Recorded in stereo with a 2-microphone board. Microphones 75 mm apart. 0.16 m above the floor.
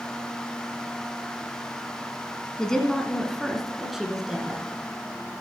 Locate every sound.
2.6 s a woman speaking: 10° left (ahead or behind), 1.4 m; by 4.6 s 10° right (ahead or behind), 2 m